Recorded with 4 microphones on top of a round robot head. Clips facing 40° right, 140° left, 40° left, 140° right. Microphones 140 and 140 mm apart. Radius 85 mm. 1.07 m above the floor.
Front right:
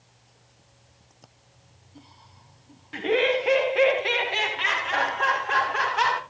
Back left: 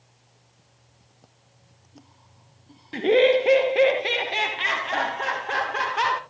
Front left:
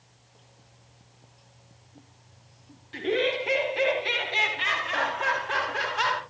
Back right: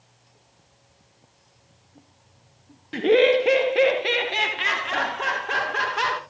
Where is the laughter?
165° right, 0.9 m.